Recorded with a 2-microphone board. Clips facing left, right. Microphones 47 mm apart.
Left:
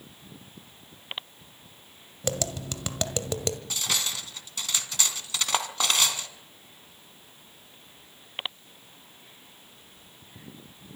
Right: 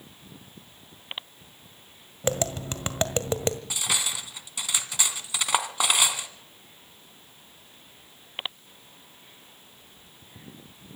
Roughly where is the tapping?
Right.